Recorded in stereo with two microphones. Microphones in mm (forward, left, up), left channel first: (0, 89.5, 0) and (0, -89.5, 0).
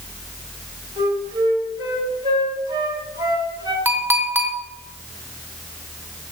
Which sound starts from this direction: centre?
A clink, at 3.9 s.